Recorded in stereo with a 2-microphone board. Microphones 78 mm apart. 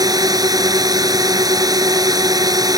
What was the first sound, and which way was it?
A drone, 50° right (ahead or behind).